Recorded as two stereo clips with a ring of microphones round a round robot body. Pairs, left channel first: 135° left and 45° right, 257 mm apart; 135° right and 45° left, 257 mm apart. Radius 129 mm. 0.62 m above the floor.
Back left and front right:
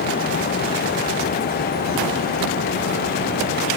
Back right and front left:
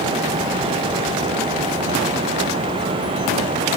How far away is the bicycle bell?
I don't hear a bicycle bell.